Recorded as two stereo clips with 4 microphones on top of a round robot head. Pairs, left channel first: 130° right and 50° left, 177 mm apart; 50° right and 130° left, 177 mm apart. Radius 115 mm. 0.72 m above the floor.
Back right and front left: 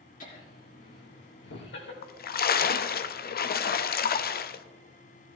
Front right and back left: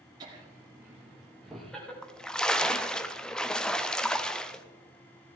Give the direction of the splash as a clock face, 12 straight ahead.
5 o'clock.